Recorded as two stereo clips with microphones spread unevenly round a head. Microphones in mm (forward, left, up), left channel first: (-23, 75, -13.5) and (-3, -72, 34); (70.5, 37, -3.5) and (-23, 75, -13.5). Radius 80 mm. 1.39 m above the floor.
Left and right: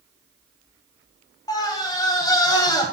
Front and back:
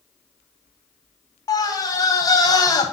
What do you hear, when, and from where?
1.5 s a scream: 35° left, 1.4 m